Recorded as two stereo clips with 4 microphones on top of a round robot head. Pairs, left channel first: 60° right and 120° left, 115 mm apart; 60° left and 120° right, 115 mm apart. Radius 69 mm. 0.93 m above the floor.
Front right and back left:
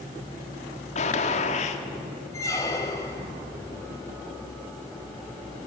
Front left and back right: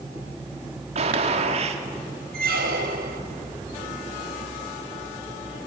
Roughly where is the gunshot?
Right.